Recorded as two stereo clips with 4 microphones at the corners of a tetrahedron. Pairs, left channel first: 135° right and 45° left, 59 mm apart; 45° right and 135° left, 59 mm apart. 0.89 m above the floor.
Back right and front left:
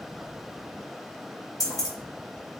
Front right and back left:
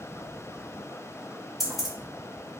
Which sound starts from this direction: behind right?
Keys jangling, at 1.6 s.